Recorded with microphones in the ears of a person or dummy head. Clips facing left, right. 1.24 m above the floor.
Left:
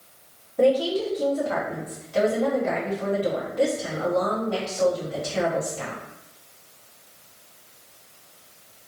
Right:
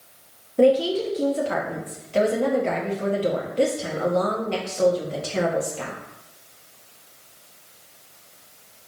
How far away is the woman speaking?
About 0.9 m.